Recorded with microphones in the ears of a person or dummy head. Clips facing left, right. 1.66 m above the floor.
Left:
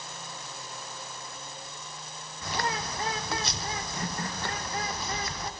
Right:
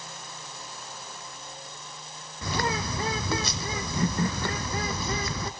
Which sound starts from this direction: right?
A bird, at 2.4 s.